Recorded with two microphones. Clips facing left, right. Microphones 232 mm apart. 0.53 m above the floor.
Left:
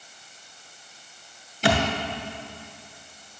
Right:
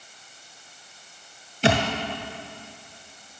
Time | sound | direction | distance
1.6 | a thud | 25° right (ahead or behind) | 1.2 m